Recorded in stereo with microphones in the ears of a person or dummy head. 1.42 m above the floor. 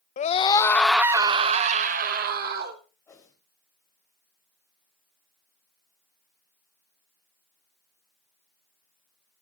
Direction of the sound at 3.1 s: 15° left (ahead or behind).